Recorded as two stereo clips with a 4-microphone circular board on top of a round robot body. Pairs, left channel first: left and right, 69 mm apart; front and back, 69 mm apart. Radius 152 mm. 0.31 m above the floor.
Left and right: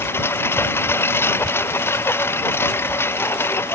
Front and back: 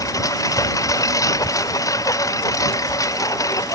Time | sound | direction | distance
0.0 | a lawn mower | 35° left | ?